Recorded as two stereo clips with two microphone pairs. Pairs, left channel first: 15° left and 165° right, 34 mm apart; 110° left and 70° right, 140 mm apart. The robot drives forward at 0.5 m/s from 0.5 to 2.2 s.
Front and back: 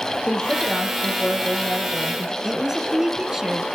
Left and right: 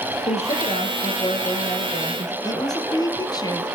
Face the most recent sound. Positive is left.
turn(degrees=130)